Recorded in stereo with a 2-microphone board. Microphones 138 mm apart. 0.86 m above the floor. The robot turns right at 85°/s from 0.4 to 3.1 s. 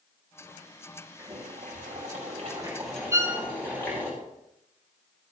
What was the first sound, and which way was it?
Boiling, 150° right.